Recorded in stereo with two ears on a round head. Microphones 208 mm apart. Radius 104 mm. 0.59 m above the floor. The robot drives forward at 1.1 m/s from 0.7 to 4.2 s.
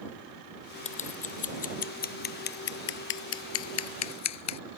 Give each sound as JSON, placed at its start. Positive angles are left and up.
{"t": 0.8, "sound": "scissors", "side_deg": 30}